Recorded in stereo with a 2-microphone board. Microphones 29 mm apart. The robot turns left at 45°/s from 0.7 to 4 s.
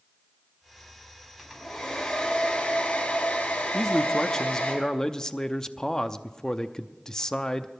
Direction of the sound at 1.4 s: 165° right.